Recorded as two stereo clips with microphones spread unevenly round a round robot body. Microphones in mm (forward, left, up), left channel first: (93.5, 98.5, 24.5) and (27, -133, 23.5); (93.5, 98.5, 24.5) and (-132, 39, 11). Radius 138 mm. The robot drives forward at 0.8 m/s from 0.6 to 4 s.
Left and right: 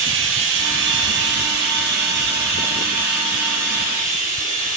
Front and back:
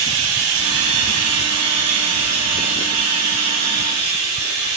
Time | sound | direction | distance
0.0 | running water | 145° right | 1.7 m